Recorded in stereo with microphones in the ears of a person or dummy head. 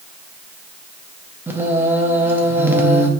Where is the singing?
15° right (ahead or behind), 0.7 m.